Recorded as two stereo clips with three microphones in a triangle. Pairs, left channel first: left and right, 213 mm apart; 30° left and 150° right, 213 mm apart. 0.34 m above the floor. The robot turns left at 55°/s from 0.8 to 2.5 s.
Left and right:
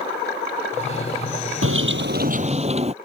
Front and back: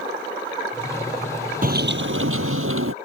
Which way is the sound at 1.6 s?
100° right.